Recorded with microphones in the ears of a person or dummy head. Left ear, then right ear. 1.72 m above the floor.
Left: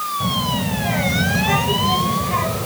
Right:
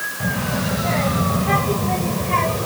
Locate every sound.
0.2 s a child speaking: 10° right (ahead or behind); by 2.6 s 25° right (ahead or behind)